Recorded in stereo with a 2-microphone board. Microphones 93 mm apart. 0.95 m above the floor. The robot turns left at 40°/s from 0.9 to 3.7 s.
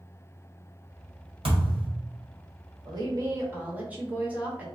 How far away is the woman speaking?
About 1.3 m.